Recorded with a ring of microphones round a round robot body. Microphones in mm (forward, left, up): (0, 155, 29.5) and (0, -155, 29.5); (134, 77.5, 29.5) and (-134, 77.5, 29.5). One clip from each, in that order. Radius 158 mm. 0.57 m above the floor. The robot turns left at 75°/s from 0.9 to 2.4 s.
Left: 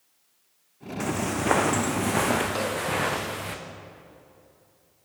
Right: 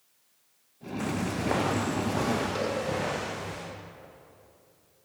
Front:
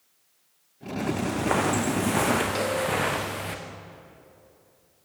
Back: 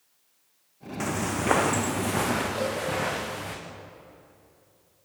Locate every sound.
1.0 s footsteps: 160° left, 3 m; by 3.5 s 60° left, 4.5 m
2.5 s a cowbell: 15° left, 7 m